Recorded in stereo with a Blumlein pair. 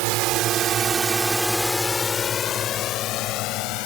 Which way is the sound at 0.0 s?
45° right.